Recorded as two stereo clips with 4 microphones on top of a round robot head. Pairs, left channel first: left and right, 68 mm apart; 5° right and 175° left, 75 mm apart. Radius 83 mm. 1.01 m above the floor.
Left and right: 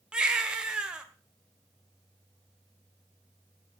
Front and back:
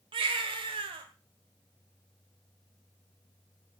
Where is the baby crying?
165° right, 1.6 m.